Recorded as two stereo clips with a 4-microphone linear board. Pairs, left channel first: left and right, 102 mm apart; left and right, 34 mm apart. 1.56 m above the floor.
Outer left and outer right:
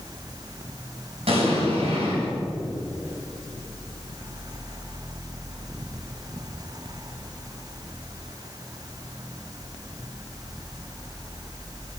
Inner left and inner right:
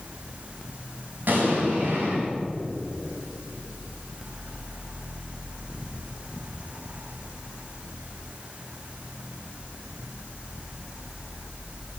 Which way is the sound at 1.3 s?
70° right (ahead or behind).